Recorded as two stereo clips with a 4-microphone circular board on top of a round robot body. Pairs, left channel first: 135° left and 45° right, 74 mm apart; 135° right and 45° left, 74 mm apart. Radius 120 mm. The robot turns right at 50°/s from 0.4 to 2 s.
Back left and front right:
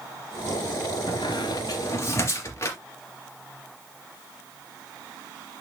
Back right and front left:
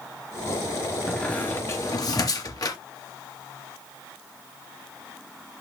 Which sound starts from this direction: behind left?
A squeak, at 1.1 s.